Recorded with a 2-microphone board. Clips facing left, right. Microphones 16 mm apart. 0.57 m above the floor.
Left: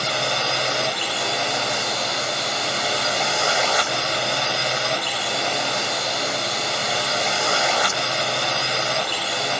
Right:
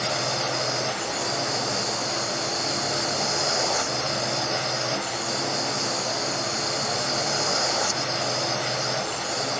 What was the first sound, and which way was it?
A drone, 70° left (ahead or behind).